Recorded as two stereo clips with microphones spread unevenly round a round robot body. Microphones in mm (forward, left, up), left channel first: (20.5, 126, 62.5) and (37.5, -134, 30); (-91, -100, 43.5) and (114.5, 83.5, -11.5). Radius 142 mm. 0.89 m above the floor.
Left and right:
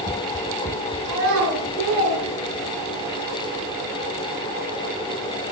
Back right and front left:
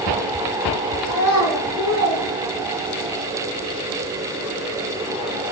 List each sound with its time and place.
1.1 s a child speaking: 100° right, 6.5 m; by 3.1 s 105° right, 8.5 m